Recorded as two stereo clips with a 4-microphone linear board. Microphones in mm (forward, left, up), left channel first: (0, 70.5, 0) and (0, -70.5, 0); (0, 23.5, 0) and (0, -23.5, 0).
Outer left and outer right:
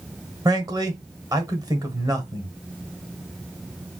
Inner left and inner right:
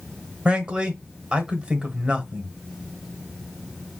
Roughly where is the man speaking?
Right.